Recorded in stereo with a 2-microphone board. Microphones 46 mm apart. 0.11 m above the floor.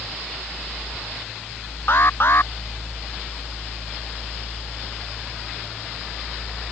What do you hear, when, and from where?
1.9 s an alarm: 55° left (ahead or behind)